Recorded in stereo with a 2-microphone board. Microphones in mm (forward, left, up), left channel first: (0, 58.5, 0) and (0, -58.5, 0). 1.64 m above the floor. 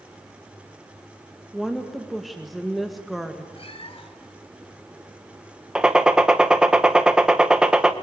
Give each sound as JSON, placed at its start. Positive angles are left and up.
{"t": 1.5, "sound": "a woman speaking", "side_deg": 0, "distance_m": 2.0}
{"t": 3.5, "sound": "a cat meowing", "side_deg": 55, "distance_m": 2.0}
{"t": 5.8, "sound": "a gunshot", "side_deg": -5, "distance_m": 1.6}